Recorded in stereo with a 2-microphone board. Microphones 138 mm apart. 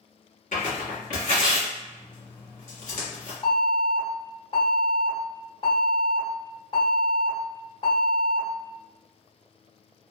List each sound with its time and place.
0.5 s tearing paper: 75° left (ahead or behind), 1.3 m
3.4 s an alarm: 40° left (ahead or behind), 2.0 m